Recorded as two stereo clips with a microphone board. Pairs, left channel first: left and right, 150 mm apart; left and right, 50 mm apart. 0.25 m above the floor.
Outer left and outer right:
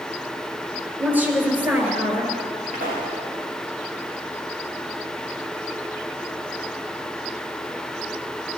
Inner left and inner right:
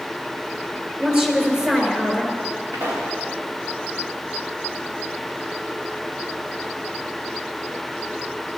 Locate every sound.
1.0 s a woman speaking: 15° right (ahead or behind), 4 m; by 2.4 s 10° right (ahead or behind), 3.5 m
2.7 s a pop: 80° right, 7.5 m